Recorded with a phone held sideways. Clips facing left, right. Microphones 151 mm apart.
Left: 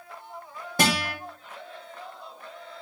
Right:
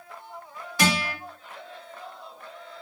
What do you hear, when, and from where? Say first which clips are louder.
0.8 s a guitar: even; 45° left (ahead or behind), 1.6 m